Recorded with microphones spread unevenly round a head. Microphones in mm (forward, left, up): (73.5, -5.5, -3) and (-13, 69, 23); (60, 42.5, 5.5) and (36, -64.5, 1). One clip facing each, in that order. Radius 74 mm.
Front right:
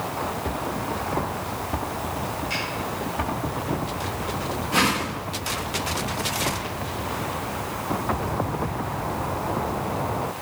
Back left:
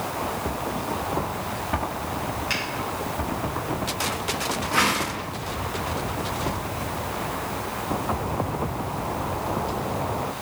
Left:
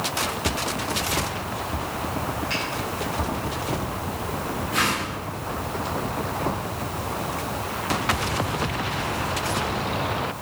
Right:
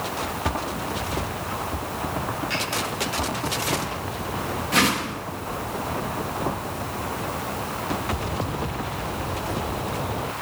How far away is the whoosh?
About 1.5 m.